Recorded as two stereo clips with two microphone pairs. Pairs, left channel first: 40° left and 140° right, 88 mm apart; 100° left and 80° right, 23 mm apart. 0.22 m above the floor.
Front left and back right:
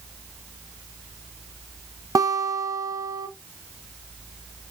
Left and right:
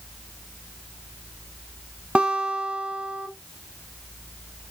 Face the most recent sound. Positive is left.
turn(degrees=-100)